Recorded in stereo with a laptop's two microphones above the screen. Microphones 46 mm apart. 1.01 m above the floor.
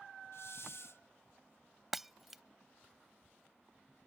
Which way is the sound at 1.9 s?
5° right (ahead or behind).